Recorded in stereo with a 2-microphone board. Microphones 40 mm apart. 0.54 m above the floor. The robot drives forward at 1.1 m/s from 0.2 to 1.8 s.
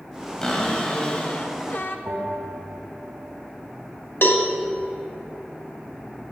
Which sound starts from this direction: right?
A bell, at 2.1 s.